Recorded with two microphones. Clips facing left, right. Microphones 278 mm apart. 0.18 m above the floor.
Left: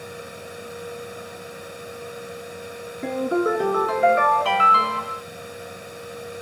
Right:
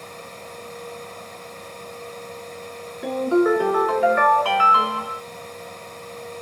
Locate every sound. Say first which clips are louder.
3.0 s a ringtone: right 4 dB; 25° left (ahead or behind), 1.1 m